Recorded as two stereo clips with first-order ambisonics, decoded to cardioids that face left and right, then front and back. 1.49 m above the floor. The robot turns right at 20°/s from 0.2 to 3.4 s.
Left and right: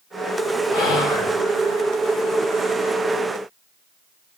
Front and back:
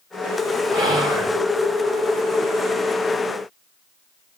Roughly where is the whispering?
Left.